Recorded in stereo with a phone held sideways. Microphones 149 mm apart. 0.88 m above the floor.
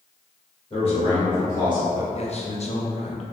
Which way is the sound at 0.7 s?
40° left (ahead or behind).